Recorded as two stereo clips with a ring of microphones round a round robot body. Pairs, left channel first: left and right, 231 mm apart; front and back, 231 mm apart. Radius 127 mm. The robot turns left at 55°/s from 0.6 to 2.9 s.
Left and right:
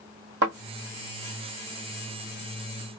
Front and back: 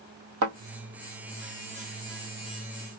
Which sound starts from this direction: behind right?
A thud, at 0.4 s.